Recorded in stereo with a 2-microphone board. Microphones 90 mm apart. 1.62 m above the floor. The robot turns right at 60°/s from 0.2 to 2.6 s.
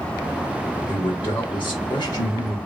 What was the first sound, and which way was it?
A man speaking, 55° left.